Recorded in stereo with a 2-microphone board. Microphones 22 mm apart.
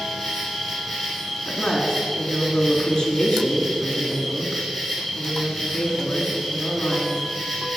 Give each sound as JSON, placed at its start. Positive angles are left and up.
{"t": 0.0, "sound": "an insect", "side_deg": 20, "distance_m": 4.5}
{"t": 1.4, "sound": "a woman speaking", "side_deg": 60, "distance_m": 2.5}